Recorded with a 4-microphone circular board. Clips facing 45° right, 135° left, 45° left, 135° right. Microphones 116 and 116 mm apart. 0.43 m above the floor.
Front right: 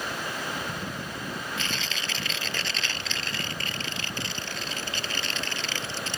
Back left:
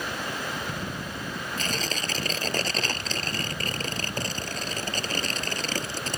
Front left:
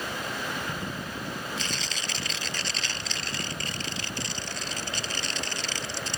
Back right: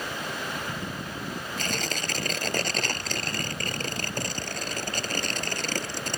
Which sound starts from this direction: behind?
Tearing paper, at 1.6 s.